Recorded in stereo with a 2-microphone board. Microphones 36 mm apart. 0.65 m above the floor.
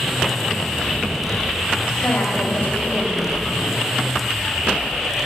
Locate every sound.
2.0 s a woman speaking: 60° left (ahead or behind), 3.5 m